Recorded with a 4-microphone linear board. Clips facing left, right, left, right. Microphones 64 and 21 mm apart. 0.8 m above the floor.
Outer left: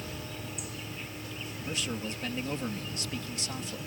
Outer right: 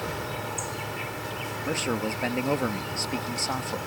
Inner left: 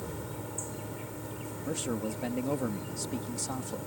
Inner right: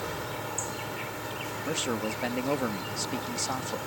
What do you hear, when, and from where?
0.0 s an insect: 80° right
1.6 s a man speaking: 45° right (ahead or behind)